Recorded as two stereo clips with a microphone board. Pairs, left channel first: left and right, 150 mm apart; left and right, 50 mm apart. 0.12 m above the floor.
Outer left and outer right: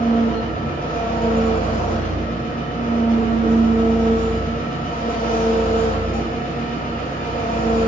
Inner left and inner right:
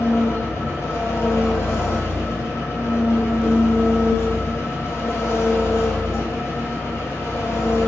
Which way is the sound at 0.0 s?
70° left (ahead or behind).